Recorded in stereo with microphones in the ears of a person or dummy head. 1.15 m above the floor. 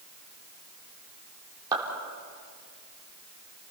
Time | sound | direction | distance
1.7 | a clap | 20° right (ahead or behind) | 3.5 m